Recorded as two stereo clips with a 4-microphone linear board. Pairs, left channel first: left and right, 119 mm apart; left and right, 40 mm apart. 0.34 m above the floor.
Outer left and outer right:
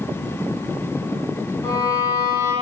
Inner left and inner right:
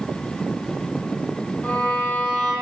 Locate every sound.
1.6 s a violin: 30° left (ahead or behind), 6.5 m